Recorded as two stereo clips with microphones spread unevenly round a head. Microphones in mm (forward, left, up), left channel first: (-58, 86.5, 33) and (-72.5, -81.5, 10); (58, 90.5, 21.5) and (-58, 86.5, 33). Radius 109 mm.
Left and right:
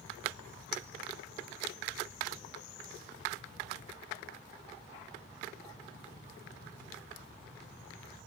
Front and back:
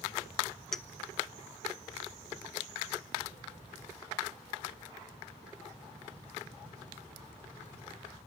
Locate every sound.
0.7 s a clink: 90° left, 1.3 m